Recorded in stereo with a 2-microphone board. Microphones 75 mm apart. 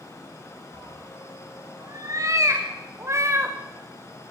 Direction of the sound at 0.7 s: 50° right (ahead or behind).